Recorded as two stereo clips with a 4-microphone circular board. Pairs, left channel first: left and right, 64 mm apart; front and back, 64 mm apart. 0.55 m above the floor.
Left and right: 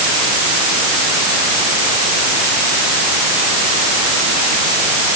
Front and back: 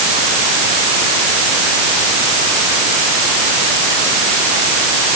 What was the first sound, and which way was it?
Only background noise.